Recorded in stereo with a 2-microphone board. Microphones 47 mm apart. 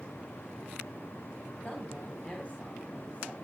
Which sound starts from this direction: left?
A woman speaking, at 1.6 s.